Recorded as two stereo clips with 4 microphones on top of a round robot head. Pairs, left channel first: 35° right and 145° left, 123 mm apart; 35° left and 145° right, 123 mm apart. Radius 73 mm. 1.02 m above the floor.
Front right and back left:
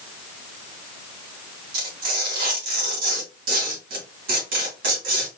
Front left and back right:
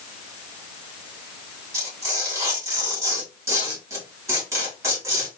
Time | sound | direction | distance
1.7 | tearing paper | 145° left | 3 m